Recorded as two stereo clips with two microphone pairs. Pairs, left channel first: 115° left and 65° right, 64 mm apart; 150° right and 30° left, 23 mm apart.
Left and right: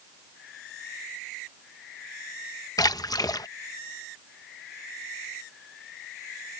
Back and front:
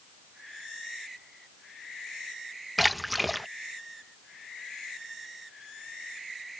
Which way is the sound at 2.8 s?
125° left.